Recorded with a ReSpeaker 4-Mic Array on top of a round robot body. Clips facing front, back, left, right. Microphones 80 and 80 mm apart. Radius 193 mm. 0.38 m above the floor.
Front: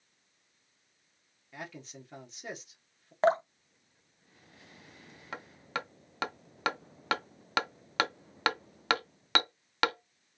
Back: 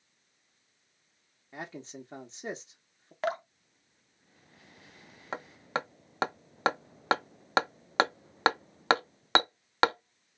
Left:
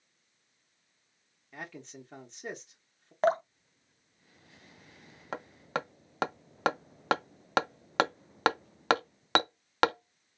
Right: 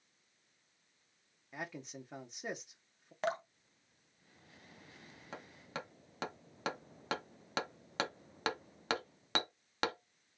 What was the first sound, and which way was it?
A man speaking, 160° right.